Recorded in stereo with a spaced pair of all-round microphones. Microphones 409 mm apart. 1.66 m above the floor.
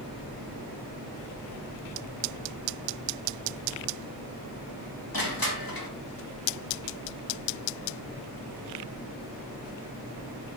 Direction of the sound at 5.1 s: 55° left (ahead or behind).